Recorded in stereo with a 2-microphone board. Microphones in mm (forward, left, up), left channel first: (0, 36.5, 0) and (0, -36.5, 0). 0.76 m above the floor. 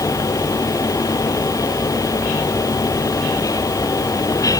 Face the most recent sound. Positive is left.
No sound to turn to.